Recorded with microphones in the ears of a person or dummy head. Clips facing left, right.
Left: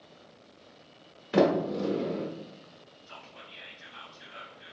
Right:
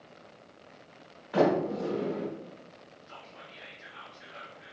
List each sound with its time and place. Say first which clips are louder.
1.3 s a sliding door: left 1 dB; 35° left (ahead or behind), 1.1 m
3.1 s whispering: even; 40° left (ahead or behind), 0.7 m